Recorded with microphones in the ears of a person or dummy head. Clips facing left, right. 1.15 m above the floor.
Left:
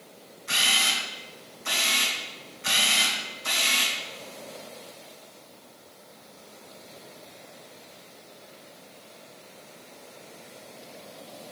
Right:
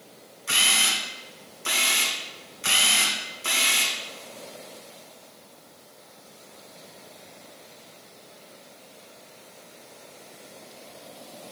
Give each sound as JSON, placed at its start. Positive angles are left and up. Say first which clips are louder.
{"t": 0.5, "sound": "a camera shutter", "louder": "right 1 dB", "side_deg": -45, "distance_m": 1.4}